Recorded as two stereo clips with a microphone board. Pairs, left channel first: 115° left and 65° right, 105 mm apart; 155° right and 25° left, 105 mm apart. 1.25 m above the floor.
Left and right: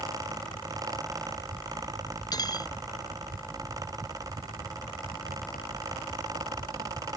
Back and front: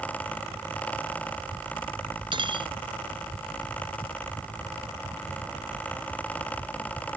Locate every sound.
2.3 s cutlery clinking: 65° left